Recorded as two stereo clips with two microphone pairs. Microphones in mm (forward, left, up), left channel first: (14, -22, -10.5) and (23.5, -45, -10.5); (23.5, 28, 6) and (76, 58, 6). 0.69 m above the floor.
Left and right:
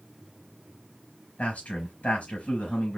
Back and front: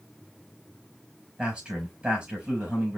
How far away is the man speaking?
About 4 m.